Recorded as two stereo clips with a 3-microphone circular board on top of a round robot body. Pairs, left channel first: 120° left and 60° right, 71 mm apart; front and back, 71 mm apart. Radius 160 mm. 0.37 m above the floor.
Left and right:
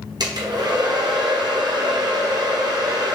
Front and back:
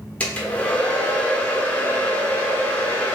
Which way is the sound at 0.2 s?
70° right.